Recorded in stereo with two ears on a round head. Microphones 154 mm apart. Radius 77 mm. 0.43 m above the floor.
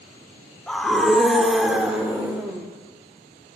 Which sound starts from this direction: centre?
A scream, at 0.7 s.